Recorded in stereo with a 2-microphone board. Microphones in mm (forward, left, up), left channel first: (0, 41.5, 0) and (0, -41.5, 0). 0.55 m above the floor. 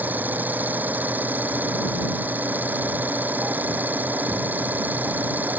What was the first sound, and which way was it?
An engine running, 20° right (ahead or behind).